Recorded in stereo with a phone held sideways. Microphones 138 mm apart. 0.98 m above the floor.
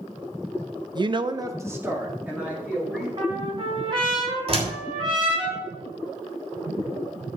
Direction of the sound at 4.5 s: 45° right (ahead or behind).